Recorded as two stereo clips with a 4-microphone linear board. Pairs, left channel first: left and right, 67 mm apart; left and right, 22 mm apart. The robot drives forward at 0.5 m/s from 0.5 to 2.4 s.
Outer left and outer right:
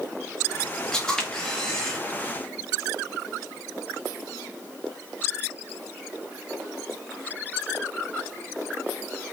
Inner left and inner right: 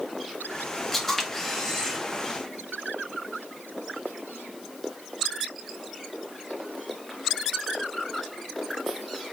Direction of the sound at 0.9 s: 10° left (ahead or behind).